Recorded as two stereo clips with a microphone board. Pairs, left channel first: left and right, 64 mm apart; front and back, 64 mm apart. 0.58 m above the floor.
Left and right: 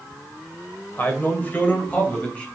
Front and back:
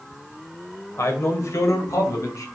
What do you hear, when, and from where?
1.0 s a man speaking: 35° left, 2 m; by 2.5 s 25° left, 3 m